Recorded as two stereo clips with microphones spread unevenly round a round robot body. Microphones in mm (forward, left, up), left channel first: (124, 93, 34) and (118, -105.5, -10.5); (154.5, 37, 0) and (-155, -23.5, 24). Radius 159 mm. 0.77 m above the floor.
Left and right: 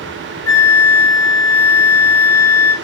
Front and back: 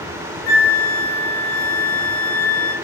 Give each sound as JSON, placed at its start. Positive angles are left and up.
{"t": 0.5, "sound": "a flute", "azimuth_deg": 65, "distance_m": 0.7}